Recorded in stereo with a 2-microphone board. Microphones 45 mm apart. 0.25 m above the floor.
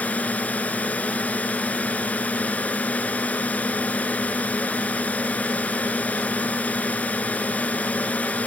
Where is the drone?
35° left (ahead or behind).